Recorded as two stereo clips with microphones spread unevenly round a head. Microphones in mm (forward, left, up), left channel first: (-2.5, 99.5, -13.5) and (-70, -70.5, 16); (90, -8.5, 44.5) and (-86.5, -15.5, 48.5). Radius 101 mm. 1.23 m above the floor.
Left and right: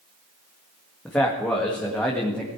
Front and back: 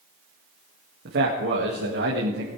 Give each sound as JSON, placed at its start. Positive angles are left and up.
{"t": 1.1, "sound": "a man speaking", "azimuth_deg": 150, "distance_m": 1.9}